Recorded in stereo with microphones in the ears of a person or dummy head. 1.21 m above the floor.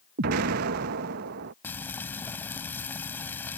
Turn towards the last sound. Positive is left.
turn(degrees=5)  # may be behind; listen again after turning